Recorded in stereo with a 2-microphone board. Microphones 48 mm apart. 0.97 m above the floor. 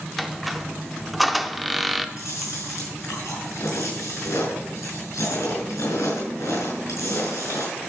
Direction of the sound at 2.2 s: 80° left.